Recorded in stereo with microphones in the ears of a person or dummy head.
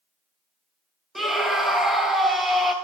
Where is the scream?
Centre (ahead or behind), 1.2 m.